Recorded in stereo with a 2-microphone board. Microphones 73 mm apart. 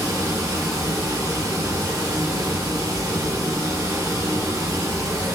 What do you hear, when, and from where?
0.0 s running water: 80° right, 2.5 m